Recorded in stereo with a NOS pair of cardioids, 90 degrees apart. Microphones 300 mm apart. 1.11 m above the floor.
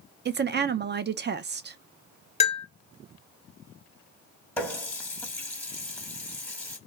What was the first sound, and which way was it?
A woman speaking, 35° right.